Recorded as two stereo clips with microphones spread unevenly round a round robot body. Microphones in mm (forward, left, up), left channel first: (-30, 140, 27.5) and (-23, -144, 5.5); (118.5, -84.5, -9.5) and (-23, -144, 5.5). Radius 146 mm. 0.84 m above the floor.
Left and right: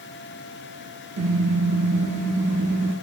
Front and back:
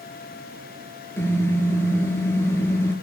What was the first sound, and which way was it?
A car horn, 55° right.